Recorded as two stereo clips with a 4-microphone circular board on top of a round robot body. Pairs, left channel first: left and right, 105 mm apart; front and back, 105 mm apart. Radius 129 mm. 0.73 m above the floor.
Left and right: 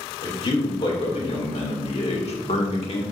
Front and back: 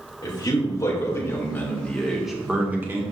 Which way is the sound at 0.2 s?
50° left.